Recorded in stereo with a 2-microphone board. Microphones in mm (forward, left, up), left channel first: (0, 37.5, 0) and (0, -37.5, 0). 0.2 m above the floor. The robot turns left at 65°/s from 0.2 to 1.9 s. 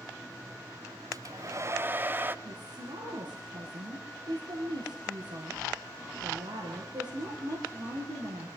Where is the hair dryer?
90° right, 0.7 m; by 2.4 s 145° right, 0.7 m.